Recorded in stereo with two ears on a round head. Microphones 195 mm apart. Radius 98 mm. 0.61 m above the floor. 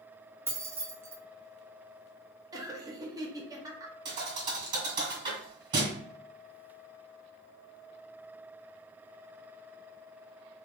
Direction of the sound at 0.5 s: 10° right (ahead or behind).